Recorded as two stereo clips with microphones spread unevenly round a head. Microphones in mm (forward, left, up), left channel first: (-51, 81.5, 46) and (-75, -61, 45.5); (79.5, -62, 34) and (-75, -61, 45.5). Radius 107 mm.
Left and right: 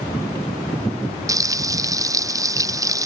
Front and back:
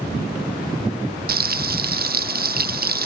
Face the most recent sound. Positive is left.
turn(degrees=-165)